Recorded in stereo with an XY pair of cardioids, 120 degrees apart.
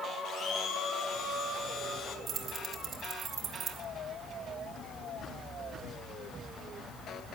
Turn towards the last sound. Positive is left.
turn(degrees=-40)